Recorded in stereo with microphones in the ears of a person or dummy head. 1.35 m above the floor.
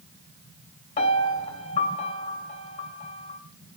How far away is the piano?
About 2.0 m.